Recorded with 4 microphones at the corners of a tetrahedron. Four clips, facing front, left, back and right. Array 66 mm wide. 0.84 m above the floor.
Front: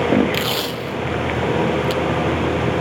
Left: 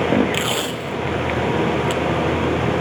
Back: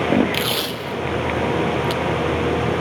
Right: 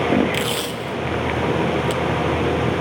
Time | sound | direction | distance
0.3 | tape being pulled | 70° left | 0.5 m